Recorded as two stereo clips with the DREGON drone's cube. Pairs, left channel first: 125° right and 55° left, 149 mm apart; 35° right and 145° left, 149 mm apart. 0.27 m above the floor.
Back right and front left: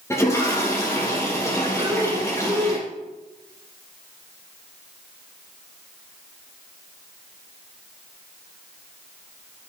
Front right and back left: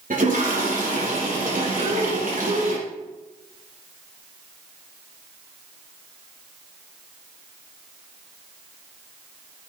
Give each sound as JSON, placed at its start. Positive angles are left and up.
{"t": 0.1, "sound": "a toilet flushing", "azimuth_deg": 165, "distance_m": 4.5}
{"t": 1.8, "sound": "breathing", "azimuth_deg": 115, "distance_m": 1.7}